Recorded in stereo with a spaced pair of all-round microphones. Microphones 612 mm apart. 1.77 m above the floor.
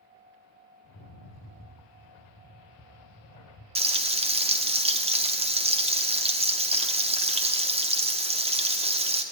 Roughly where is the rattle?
Left.